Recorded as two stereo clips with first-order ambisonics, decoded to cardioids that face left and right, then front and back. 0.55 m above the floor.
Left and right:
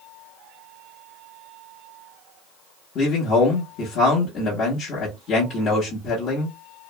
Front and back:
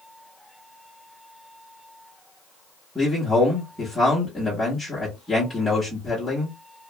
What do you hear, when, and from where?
3.0 s a man speaking: 80° left, 1.0 m